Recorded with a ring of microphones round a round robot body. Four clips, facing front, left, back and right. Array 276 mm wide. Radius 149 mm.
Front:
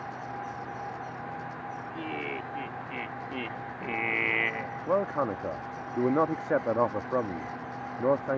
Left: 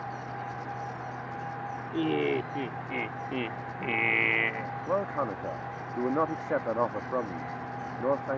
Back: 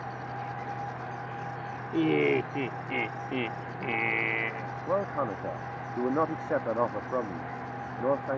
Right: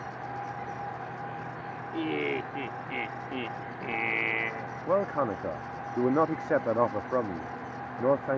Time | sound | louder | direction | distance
1.9 | laughter | left 3 dB, back 14 dB | 165° left | ?
4.9 | a man speaking | right 3 dB, front 2 dB | 55° right | ?